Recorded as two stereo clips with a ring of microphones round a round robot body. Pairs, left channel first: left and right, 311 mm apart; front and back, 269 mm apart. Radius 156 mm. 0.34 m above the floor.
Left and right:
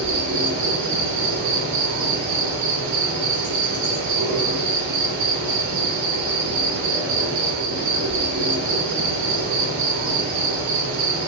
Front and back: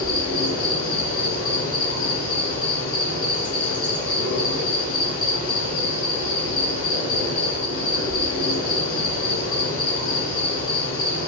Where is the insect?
80° right, 2.0 m.